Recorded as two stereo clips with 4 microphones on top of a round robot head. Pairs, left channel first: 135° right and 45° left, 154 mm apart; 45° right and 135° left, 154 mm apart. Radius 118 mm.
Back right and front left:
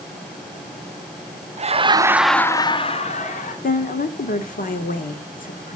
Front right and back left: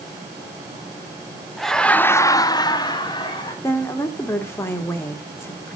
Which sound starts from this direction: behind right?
A woman speaking, at 3.6 s.